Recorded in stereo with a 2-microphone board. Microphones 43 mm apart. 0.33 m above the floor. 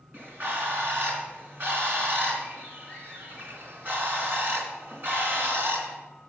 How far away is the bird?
About 3 m.